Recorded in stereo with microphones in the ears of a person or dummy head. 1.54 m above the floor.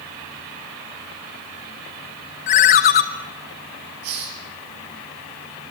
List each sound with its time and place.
2.5 s a ringtone: 35° left (ahead or behind), 0.8 m
4.0 s a hiss: 50° right (ahead or behind), 3 m